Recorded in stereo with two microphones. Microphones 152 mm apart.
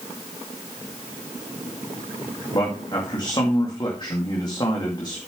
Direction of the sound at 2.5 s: 30° left (ahead or behind).